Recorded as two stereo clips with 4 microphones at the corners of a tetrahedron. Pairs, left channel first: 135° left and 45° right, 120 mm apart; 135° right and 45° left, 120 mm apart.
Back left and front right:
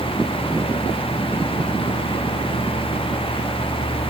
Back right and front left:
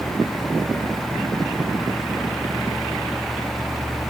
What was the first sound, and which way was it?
Only background noise.